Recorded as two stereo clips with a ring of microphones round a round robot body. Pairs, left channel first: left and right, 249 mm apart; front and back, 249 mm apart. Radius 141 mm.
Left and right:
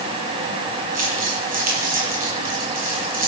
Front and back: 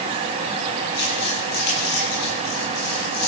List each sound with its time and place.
0.9 s crumpling: 35° right, 9.5 m